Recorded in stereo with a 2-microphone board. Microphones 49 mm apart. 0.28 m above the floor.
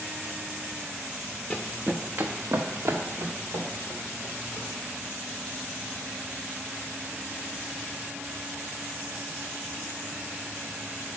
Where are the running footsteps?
5° left (ahead or behind), 1.0 m; by 4.7 s 80° right, 4 m.